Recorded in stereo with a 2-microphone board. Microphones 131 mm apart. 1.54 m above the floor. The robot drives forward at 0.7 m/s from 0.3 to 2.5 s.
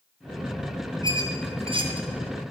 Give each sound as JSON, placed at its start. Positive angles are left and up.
{"t": 1.0, "sound": "a squeak", "side_deg": -35, "distance_m": 0.8}